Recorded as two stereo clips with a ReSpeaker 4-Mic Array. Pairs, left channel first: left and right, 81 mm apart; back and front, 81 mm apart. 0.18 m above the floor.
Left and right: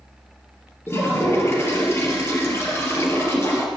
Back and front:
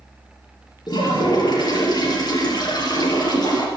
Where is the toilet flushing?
150° left, 3 m.